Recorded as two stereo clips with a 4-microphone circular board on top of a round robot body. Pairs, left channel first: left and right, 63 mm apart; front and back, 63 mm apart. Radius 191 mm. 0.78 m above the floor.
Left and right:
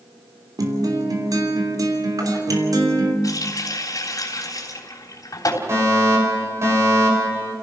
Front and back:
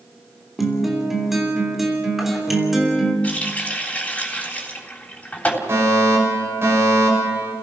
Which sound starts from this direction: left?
A running tap, at 3.2 s.